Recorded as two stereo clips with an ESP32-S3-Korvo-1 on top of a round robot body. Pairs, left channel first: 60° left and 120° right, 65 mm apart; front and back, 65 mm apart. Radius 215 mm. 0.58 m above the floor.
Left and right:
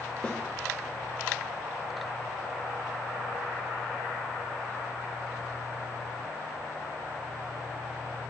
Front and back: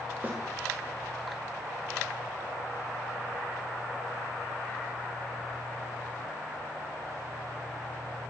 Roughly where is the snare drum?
Behind left.